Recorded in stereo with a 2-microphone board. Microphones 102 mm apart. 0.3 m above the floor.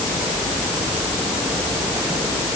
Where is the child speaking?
No child speaking in this recording.